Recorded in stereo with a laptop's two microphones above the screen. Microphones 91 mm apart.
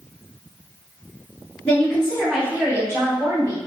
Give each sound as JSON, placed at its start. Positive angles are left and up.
{"t": 1.6, "sound": "a woman speaking", "side_deg": 15, "distance_m": 0.8}